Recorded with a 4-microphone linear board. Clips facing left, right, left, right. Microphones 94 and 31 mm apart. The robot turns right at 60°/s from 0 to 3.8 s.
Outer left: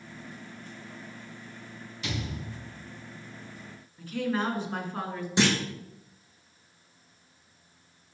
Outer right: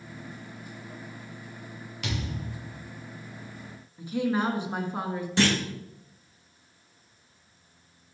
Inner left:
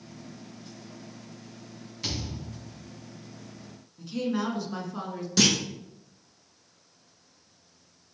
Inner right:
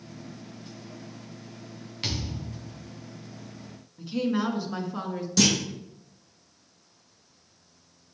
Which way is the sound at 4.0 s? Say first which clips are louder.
Outer right 3 dB, inner right 2 dB; 15° right (ahead or behind).